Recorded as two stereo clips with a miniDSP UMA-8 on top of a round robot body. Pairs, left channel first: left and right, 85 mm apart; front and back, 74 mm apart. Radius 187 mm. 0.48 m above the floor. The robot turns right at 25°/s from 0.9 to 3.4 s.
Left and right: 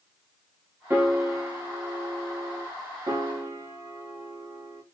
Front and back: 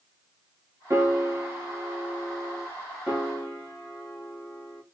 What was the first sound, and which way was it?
A piano, 145° right.